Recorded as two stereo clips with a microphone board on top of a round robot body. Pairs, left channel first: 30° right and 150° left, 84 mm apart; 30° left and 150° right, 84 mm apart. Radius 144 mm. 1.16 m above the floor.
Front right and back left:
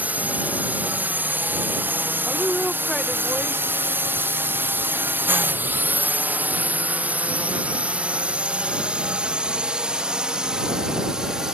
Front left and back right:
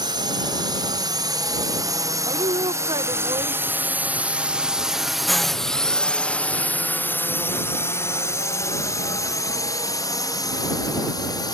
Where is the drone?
140° right; by 11.6 s 70° left.